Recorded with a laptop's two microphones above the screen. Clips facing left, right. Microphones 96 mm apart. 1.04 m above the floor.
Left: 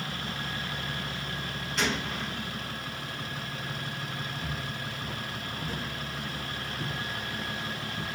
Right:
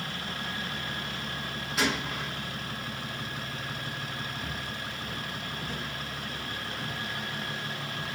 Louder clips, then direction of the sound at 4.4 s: Left 1 dB; 25° left (ahead or behind).